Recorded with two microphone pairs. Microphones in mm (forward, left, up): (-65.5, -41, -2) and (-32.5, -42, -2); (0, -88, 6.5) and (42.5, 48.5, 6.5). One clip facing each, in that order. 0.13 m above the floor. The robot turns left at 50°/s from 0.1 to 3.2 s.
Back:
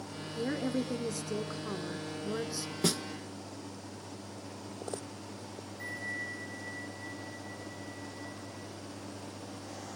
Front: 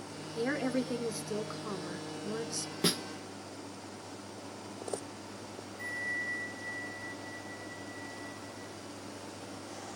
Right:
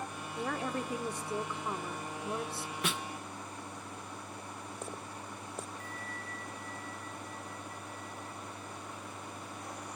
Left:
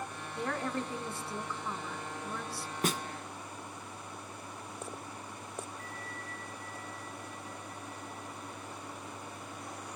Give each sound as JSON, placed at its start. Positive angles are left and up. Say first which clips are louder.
{"t": 0.3, "sound": "a woman speaking", "louder": "front 1 dB, left 1 dB", "azimuth_deg": -20, "distance_m": 1.1}
{"t": 2.8, "sound": "a snare drum", "louder": "even, left 5 dB", "azimuth_deg": 65, "distance_m": 0.8}
{"t": 5.8, "sound": "a bell", "louder": "front 3 dB, even", "azimuth_deg": 45, "distance_m": 8.5}